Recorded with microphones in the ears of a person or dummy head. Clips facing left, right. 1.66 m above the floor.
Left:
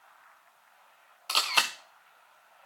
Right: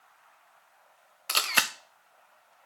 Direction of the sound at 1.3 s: 25° right (ahead or behind).